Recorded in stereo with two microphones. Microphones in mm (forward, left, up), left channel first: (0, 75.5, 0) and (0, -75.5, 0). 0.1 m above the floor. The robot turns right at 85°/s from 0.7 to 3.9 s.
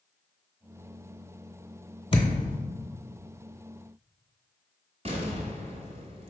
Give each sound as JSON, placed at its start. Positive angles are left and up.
{"t": 2.1, "sound": "a thud", "side_deg": 35, "distance_m": 0.8}
{"t": 5.0, "sound": "an explosion", "side_deg": -45, "distance_m": 0.8}